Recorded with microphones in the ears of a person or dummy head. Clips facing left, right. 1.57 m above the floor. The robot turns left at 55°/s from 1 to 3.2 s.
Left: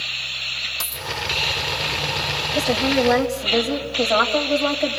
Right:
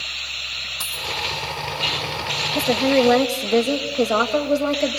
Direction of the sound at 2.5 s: 10° right.